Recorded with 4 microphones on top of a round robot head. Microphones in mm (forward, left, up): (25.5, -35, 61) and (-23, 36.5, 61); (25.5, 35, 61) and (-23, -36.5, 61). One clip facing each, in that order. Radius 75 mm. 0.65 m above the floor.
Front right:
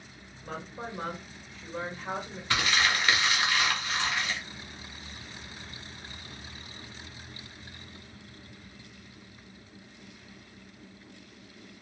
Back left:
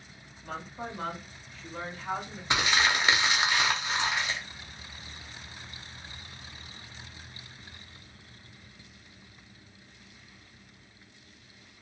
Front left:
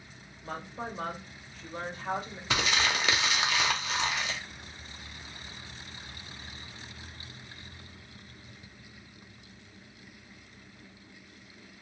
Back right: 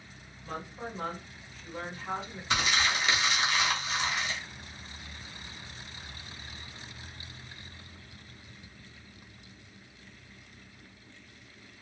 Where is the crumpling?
50° left, 0.6 m.